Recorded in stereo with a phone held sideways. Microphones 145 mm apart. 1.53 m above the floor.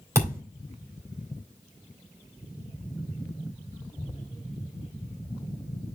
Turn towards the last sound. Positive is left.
turn(degrees=-20)  # may be behind; listen again after turning